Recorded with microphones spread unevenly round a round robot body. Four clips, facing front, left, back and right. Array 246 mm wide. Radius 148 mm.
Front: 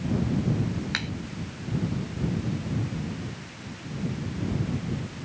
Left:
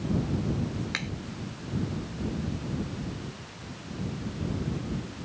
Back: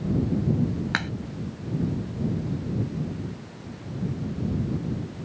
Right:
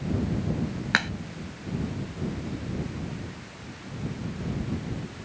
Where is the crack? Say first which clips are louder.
Right 9 dB, back 4 dB; 110° right.